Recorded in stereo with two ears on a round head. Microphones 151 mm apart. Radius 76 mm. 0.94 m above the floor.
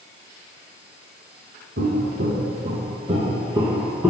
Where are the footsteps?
60° right (ahead or behind), 1.9 m; by 4.1 s 5° right (ahead or behind), 1.6 m.